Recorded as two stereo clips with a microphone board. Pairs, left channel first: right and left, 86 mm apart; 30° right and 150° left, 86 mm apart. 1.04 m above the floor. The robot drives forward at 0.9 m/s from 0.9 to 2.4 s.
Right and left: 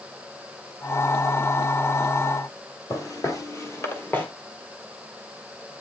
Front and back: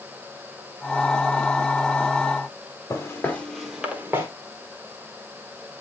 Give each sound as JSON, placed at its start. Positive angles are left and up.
{"t": 2.9, "sound": "footsteps", "azimuth_deg": -65, "distance_m": 1.5}